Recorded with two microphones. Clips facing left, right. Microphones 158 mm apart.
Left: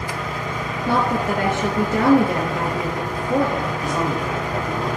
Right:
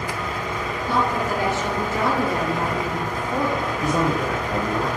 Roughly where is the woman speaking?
Left.